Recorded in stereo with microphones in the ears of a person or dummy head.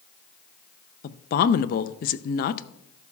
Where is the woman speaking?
45° left (ahead or behind), 0.5 m.